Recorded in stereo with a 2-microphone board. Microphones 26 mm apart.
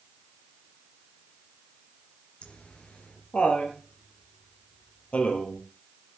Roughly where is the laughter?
Left.